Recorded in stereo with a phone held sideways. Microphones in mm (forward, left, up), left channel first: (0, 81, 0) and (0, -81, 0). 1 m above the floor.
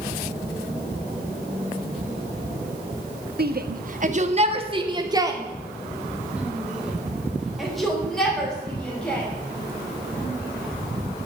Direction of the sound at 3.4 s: 70° right (ahead or behind).